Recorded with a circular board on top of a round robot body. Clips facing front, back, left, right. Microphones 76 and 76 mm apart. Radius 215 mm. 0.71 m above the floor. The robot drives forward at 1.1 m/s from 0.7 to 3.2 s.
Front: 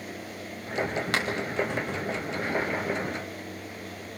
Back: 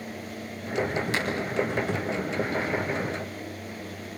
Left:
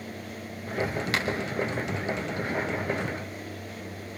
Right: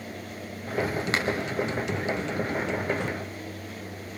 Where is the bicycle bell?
No bicycle bell in this recording.